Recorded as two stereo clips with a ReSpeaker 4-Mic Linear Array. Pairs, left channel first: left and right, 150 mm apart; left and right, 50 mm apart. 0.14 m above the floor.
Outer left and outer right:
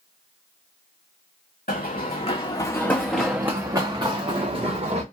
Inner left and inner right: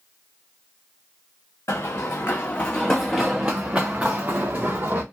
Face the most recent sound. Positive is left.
turn(degrees=-45)  # may be behind; listen again after turning